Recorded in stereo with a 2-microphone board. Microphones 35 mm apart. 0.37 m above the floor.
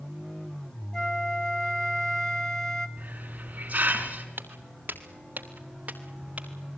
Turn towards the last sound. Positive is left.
turn(degrees=-35)  # may be behind; listen again after turning